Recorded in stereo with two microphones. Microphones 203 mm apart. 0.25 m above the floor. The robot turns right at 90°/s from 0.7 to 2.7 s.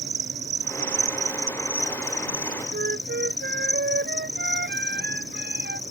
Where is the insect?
65° right; by 5.9 s 115° left.